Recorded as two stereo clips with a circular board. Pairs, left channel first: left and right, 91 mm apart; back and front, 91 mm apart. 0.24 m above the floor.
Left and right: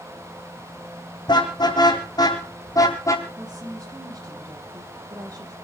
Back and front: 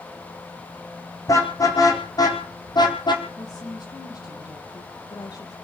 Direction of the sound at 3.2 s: 135° right.